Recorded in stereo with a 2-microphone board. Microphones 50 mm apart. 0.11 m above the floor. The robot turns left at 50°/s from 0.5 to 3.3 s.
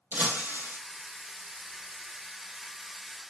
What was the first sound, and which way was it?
Breaking glass, 40° right (ahead or behind).